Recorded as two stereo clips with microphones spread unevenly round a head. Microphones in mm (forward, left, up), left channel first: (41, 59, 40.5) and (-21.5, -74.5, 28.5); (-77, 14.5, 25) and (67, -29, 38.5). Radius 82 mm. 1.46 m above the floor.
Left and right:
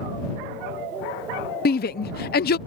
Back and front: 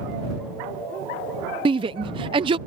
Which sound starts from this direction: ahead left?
A shout, at 1.6 s.